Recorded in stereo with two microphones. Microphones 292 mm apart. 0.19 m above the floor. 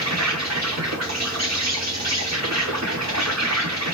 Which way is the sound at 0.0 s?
60° right (ahead or behind).